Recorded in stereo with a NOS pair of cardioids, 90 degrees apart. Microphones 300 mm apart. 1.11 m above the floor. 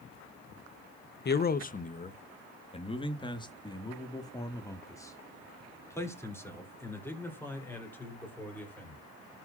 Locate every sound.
1.2 s a man speaking: 35° left, 0.9 m; by 9.0 s 5° left, 5 m